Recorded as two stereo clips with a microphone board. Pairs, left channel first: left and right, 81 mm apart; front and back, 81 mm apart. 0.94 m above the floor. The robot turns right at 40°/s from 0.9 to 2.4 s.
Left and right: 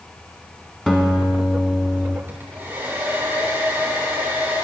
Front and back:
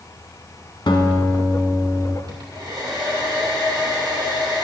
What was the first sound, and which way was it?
A guitar, 10° left.